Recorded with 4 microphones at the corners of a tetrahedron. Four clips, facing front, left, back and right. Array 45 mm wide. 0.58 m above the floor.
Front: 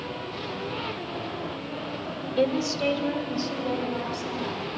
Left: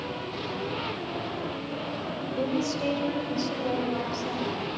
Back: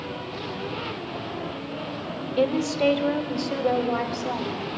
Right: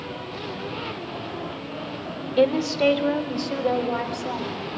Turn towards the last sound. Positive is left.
turn(degrees=-150)